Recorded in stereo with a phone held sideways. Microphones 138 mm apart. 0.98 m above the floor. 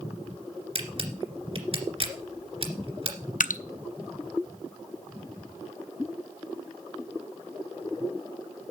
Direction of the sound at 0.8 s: 45° right (ahead or behind).